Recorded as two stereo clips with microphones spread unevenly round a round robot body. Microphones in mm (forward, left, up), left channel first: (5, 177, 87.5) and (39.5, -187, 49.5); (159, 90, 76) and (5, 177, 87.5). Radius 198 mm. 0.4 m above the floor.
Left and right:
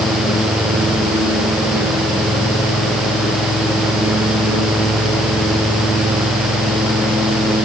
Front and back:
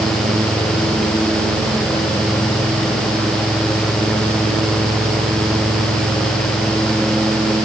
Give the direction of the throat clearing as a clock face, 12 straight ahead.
I don't hear throat clearing.